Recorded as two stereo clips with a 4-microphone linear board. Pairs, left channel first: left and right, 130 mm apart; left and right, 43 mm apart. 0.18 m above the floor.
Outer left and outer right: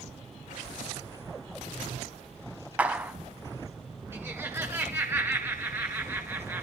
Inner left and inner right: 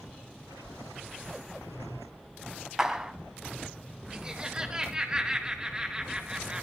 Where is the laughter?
20° right (ahead or behind), 2.5 m.